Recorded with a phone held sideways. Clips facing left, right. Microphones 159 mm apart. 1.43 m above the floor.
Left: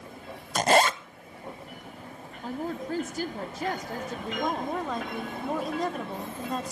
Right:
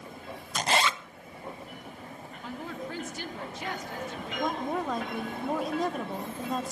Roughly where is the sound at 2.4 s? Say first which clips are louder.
Left 5 dB; left.